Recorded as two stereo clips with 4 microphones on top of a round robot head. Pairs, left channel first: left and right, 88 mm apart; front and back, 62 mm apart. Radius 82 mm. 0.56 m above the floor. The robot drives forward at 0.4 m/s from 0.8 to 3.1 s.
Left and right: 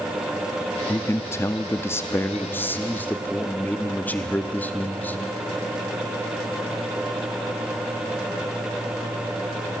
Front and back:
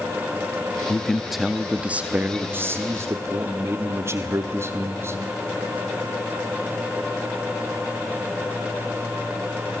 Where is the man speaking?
65° left, 0.7 m; by 5.2 s 155° left, 1.0 m.